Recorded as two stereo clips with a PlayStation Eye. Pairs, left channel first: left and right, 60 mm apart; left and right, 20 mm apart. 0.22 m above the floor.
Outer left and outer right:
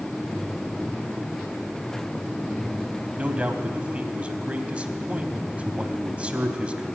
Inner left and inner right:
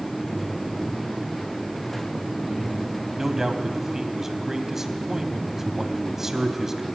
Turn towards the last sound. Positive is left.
turn(degrees=-20)  # may be behind; listen again after turning